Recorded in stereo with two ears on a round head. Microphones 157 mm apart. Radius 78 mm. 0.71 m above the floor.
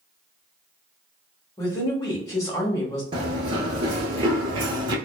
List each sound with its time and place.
1.6 s a woman speaking: 20° left (ahead or behind), 1.1 m
3.1 s running footsteps: 30° right (ahead or behind), 0.8 m